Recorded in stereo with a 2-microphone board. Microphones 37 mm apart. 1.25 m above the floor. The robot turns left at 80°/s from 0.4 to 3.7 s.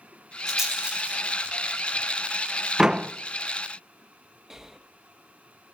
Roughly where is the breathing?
Centre.